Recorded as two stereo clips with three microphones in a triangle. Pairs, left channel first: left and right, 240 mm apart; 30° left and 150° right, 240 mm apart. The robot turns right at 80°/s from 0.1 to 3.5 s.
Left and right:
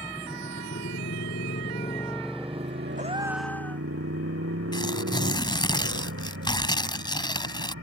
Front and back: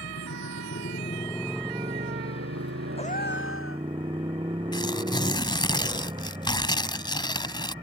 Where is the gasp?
35° right; by 3.9 s 5° left.